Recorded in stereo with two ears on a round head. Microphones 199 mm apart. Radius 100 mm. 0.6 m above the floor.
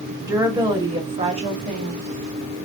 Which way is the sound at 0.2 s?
15° right (ahead or behind).